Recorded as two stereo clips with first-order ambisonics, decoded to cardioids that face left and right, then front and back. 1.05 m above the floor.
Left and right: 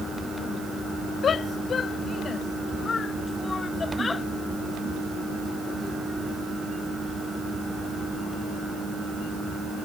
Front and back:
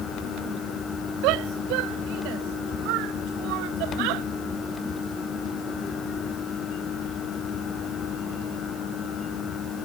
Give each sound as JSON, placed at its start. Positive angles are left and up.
{"t": 1.2, "sound": "a shout", "azimuth_deg": 155}